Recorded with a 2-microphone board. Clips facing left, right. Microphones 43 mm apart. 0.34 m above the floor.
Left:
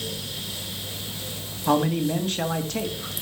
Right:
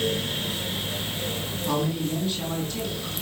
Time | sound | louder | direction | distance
1.7 | a man speaking | left 5 dB | 60° left (ahead or behind) | 2.5 m